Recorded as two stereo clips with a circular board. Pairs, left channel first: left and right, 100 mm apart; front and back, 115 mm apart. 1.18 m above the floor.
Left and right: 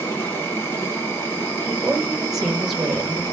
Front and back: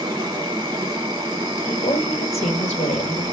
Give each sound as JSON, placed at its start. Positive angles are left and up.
{"t": 0.0, "sound": "an insect", "azimuth_deg": 145, "distance_m": 1.3}
{"t": 1.7, "sound": "a woman speaking", "azimuth_deg": -5, "distance_m": 1.1}